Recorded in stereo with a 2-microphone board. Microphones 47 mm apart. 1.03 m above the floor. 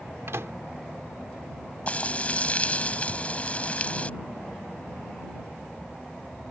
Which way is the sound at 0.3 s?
80° right.